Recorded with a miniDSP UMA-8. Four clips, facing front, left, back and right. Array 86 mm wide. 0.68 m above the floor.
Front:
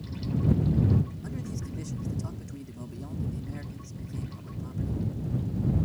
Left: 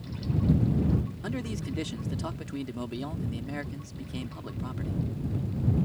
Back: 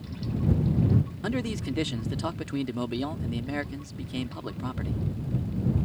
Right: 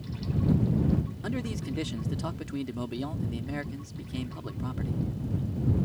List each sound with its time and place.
1.2 s a man speaking: straight behind